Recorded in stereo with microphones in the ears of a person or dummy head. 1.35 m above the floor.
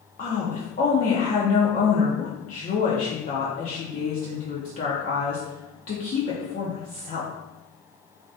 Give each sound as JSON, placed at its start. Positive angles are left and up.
{"t": 0.2, "sound": "a woman speaking", "side_deg": 45, "distance_m": 0.7}